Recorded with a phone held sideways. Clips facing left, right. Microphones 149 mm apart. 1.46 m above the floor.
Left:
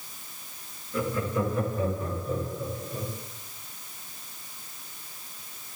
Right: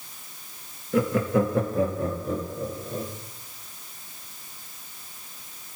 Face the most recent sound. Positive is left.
turn(degrees=-75)  # may be behind; listen again after turning